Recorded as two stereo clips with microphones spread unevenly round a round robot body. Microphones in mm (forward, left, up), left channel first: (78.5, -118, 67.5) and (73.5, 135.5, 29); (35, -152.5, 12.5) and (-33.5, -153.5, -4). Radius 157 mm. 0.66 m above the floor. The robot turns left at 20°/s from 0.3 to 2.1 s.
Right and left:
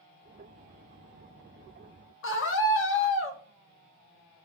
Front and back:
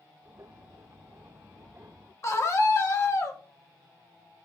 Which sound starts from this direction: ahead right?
A scream, at 2.2 s.